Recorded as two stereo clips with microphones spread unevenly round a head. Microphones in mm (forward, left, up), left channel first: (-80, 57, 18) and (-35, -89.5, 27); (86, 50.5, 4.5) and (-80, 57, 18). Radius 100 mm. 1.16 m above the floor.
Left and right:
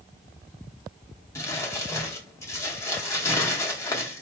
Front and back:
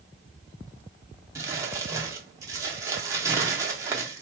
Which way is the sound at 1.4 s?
160° left.